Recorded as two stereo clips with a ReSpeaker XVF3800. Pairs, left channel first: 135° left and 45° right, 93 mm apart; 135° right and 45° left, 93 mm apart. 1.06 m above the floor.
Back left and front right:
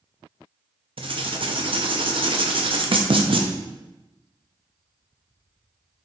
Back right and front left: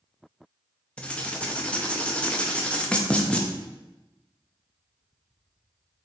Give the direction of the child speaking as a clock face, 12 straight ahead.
No child speaking in this recording.